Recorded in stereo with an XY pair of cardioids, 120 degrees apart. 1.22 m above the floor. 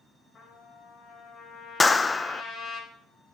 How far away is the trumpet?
About 5 m.